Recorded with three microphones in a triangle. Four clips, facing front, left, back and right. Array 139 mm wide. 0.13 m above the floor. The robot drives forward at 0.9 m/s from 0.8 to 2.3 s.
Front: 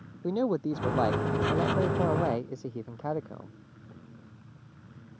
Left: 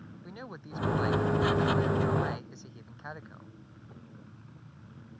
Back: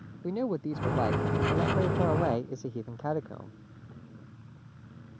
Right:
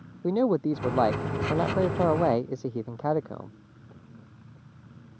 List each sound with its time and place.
0.2 s a man speaking: 80° right; by 3.6 s 95° right